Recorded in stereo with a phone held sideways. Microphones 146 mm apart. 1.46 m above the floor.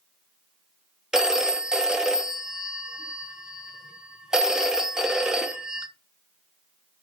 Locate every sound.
1.1 s a phone ringing: 5° right (ahead or behind), 0.5 m